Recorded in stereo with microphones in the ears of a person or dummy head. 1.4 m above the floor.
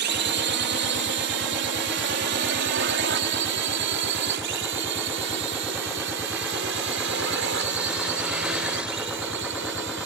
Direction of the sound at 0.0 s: 55° right (ahead or behind).